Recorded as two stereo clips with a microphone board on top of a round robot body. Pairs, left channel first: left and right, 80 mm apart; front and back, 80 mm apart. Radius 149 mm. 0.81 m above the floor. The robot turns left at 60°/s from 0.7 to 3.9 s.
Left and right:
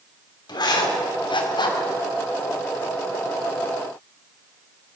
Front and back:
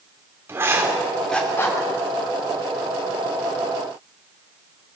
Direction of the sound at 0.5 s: 115° left.